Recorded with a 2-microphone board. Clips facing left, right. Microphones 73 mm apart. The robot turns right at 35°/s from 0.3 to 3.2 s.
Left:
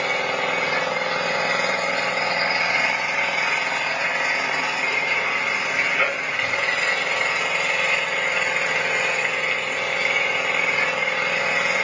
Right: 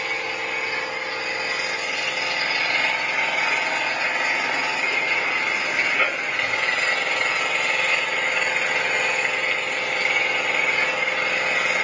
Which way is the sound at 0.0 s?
75° left.